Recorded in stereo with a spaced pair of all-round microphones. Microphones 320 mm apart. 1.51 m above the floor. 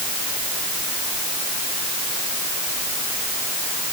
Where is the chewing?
No chewing in this recording.